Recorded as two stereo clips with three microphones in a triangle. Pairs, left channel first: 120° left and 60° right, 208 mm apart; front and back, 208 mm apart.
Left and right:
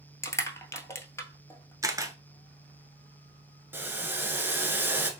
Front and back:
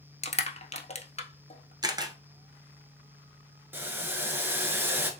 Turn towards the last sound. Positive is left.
turn(degrees=-120)